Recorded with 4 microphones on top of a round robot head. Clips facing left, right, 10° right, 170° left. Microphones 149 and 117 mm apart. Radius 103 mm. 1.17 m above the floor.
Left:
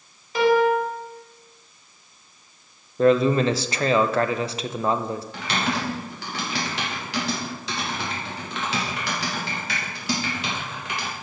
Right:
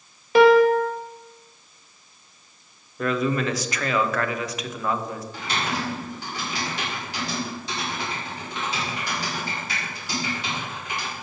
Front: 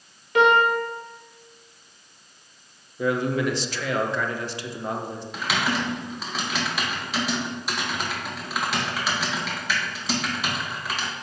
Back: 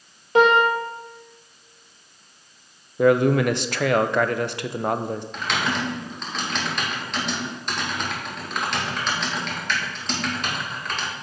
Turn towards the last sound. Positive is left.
turn(degrees=75)